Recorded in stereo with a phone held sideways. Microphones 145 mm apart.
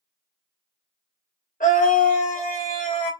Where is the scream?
65° left (ahead or behind), 2.5 m.